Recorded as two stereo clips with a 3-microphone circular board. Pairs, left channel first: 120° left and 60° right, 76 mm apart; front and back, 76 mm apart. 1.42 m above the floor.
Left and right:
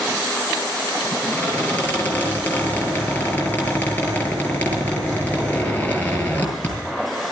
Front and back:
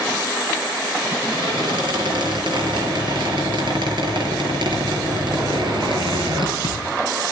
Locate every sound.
1.3 s a squeak: 170° right, 7.5 m